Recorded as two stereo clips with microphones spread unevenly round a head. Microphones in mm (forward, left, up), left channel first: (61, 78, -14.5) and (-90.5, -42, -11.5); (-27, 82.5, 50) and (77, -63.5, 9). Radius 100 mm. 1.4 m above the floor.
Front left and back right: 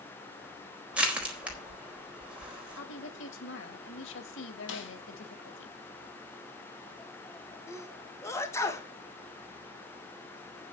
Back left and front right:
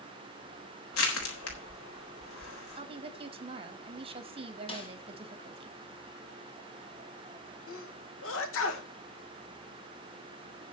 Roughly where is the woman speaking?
Ahead.